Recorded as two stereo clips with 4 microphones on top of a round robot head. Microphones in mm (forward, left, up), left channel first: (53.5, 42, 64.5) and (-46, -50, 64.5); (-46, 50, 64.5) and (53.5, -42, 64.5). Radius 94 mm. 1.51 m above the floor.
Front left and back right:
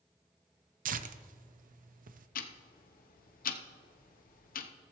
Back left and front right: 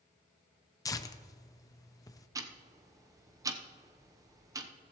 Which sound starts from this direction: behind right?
Tearing paper, at 0.8 s.